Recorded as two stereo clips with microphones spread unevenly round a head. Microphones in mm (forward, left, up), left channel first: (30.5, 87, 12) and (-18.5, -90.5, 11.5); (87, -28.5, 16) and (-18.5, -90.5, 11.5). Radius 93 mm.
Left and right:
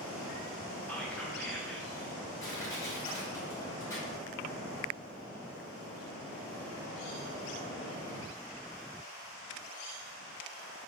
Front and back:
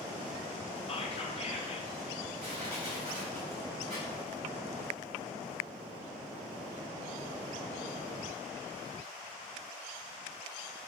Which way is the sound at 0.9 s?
10° right.